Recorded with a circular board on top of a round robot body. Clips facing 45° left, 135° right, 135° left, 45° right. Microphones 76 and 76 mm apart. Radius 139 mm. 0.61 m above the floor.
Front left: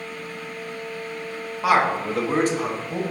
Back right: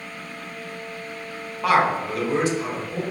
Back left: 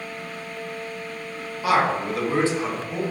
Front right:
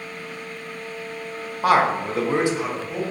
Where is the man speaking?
40° right, 1.0 m; by 3.0 s 45° left, 1.4 m.